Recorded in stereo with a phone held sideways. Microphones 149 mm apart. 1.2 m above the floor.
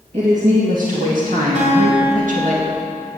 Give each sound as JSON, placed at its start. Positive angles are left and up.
{"t": 0.1, "sound": "a woman speaking", "side_deg": -60, "distance_m": 1.9}
{"t": 1.6, "sound": "a guitar", "side_deg": -55, "distance_m": 3.0}